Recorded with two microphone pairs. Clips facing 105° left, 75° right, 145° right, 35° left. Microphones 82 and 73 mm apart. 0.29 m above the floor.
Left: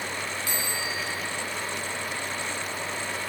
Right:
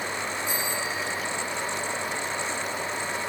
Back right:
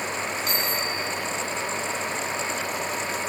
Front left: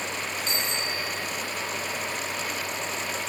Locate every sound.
0.5 s a bicycle bell: 90° left, 6.5 m